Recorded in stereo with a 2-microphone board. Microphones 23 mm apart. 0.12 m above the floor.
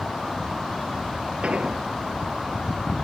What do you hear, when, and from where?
1.4 s an explosion: 65° right (ahead or behind), 1.0 m